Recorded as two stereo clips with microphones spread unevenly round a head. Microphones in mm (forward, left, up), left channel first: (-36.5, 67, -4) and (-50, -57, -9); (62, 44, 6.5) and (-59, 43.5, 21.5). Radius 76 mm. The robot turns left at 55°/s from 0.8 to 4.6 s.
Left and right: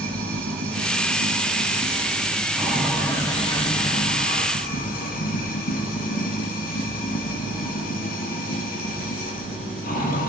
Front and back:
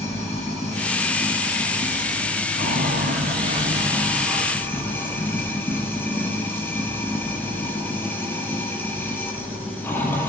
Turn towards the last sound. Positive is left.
turn(degrees=75)